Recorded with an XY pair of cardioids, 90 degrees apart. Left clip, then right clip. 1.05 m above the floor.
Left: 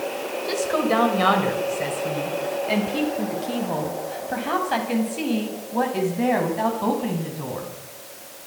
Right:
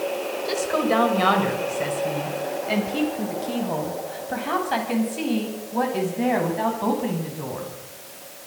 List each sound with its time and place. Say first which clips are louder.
0.4 s a woman speaking: left 2 dB; straight ahead, 6 m; by 7.7 s 5° left, 10.5 m